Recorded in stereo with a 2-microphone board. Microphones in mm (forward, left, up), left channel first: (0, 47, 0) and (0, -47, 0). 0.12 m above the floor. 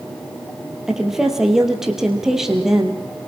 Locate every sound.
0.9 s a woman speaking: 5° right (ahead or behind), 2.5 m